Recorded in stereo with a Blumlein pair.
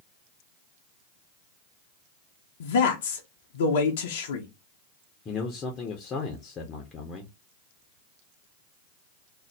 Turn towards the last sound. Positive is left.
turn(degrees=25)